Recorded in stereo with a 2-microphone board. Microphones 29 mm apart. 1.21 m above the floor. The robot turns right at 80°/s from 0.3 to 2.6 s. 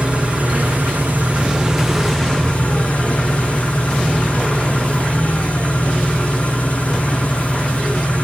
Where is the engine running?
135° right, 8.5 m; by 8.2 s 45° left, 8.5 m.